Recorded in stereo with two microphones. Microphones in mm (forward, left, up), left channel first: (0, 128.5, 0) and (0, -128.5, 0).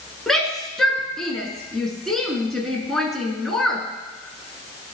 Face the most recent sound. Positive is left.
turn(degrees=0)  # may be behind; listen again after turning